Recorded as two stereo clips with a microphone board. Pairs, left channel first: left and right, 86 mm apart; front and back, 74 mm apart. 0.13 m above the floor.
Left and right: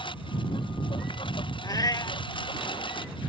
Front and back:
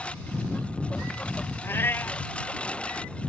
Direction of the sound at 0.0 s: 75° left.